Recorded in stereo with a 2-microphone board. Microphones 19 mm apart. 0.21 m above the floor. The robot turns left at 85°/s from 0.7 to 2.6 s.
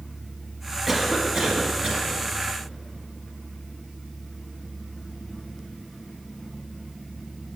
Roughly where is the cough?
Ahead.